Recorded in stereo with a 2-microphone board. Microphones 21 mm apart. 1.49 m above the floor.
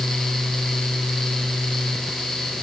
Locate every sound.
Only background noise.